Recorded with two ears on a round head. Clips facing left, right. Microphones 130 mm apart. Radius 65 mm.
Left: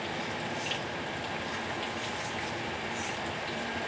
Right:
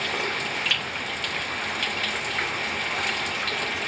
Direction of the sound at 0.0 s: 80° right.